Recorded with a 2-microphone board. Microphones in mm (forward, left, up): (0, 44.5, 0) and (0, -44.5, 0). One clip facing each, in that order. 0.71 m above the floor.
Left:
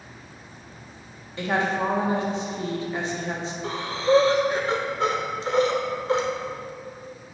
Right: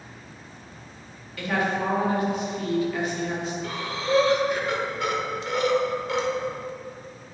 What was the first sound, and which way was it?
A woman speaking, 30° left (ahead or behind).